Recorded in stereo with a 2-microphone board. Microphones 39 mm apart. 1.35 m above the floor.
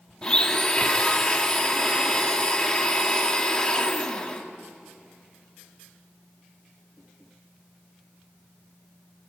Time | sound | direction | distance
0.2 | a blender | 20° left (ahead or behind) | 2 m